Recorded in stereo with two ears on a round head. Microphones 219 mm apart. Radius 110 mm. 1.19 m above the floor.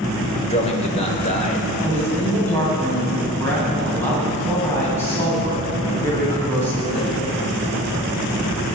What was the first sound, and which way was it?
A man speaking, 30° left (ahead or behind).